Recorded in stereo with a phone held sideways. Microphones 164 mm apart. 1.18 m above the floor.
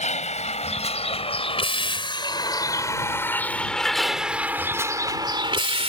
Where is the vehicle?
45° left (ahead or behind); by 5.9 s 40° right (ahead or behind).